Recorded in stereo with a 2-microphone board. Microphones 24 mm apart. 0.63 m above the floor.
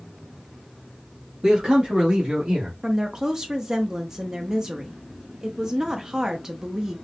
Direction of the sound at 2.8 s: 25° right (ahead or behind).